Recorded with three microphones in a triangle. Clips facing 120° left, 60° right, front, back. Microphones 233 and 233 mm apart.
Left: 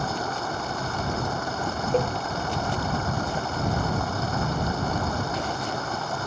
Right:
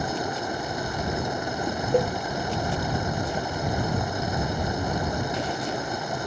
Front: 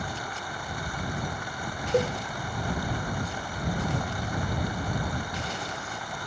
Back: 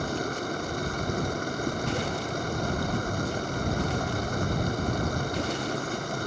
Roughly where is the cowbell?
Ahead.